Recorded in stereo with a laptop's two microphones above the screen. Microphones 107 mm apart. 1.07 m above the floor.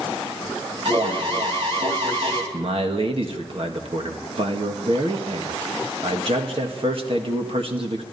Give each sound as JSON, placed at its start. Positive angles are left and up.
{"t": 0.8, "sound": "an alarm", "side_deg": -60, "distance_m": 2.5}
{"t": 2.5, "sound": "a man speaking", "side_deg": -55, "distance_m": 1.5}